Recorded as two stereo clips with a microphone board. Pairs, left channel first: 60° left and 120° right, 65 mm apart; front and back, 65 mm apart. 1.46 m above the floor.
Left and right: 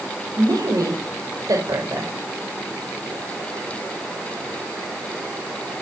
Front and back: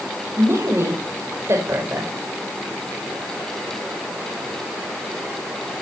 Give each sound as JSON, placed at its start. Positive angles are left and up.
{"t": 0.4, "sound": "a woman speaking", "azimuth_deg": -135, "distance_m": 5.0}